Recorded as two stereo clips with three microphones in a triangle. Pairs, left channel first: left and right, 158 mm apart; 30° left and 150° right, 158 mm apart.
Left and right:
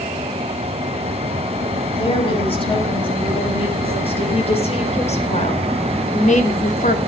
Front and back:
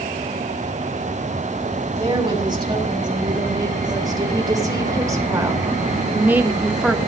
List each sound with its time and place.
1.9 s a woman speaking: 145° left, 7.5 m; by 7.0 s 120° left, 2 m